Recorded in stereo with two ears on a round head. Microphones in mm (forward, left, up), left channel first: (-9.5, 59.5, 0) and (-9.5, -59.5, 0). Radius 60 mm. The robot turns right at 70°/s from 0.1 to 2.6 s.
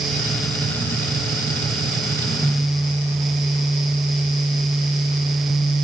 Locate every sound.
Only background noise.